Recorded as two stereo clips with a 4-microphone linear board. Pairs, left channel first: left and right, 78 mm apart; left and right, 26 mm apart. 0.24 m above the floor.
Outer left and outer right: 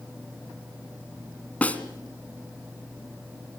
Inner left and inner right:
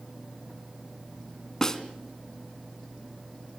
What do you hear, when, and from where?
1.6 s a snare drum: 20° left (ahead or behind), 2.5 m